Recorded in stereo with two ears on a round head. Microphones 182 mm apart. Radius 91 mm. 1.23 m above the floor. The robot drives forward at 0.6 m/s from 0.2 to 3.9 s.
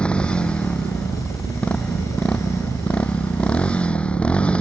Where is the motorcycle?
5° left (ahead or behind).